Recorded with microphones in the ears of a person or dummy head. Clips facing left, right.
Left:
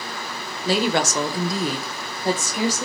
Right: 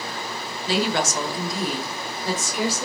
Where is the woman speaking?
40° left (ahead or behind), 0.6 m; by 2.9 s 30° left (ahead or behind), 1.0 m.